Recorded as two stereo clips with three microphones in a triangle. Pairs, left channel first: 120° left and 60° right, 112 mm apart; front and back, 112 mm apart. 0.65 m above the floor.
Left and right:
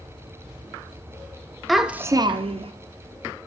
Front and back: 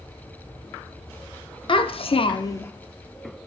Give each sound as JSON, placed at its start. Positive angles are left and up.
{"t": 1.7, "sound": "a child speaking", "azimuth_deg": 30, "distance_m": 0.8}